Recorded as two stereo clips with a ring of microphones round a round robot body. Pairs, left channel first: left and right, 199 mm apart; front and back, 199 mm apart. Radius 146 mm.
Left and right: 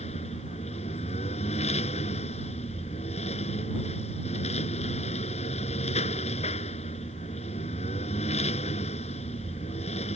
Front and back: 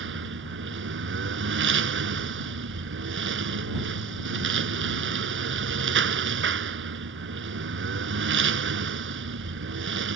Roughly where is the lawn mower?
Behind.